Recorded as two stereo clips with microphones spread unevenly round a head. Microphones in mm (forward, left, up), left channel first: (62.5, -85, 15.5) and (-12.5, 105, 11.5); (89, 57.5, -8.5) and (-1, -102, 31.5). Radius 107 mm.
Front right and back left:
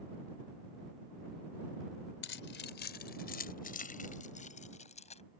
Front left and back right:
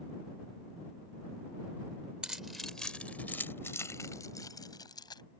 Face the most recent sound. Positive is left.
turn(degrees=-10)